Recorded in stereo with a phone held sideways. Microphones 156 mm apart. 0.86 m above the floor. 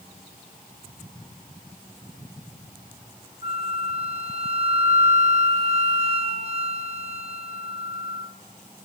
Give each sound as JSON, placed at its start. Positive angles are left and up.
{"t": 3.4, "sound": "a flute", "side_deg": -40, "distance_m": 0.7}